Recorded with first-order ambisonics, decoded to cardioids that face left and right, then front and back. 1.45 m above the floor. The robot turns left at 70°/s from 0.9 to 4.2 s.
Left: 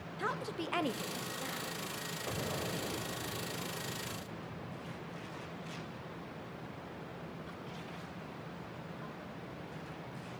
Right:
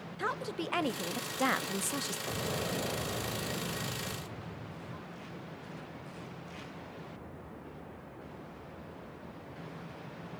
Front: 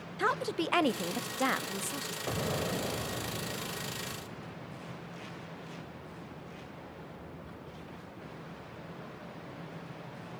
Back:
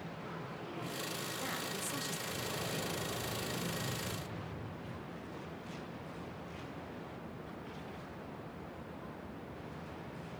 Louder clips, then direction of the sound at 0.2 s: Right 2 dB, front 19 dB; 10° right.